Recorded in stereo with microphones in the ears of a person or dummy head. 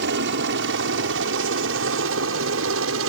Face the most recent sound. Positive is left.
turn(degrees=-65)  # may be behind; listen again after turning